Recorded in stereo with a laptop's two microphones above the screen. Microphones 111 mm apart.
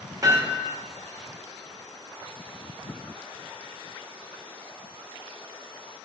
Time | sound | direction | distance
0.2 | hammering | 35° right (ahead or behind) | 3 m